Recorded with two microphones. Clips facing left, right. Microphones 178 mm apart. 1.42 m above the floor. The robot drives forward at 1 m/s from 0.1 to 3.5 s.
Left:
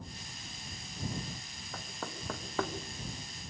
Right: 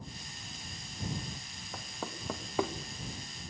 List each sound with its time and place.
1.7 s knocking: 10° right (ahead or behind), 2 m; by 2.7 s 15° right (ahead or behind), 1.1 m